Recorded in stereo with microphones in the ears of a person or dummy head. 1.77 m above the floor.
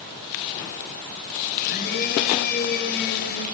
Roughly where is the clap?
I don't hear a clap.